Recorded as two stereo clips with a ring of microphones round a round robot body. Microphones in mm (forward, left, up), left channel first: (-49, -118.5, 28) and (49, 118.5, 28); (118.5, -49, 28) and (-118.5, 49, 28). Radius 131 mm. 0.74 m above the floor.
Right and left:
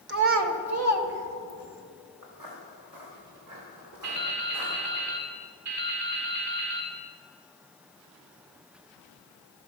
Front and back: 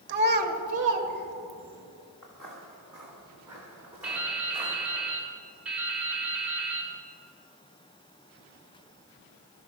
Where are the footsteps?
65° left, 3.5 m; by 5.0 s 85° left, 5.5 m.